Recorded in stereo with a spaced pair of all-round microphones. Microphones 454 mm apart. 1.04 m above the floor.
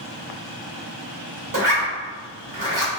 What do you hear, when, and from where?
1.5 s a zipper: 45° right (ahead or behind), 1.2 m